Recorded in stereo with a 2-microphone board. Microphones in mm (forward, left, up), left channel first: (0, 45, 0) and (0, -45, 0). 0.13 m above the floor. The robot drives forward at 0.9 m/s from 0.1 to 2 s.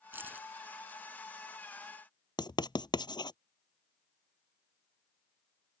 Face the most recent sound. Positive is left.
turn(degrees=55)  # may be behind; listen again after turning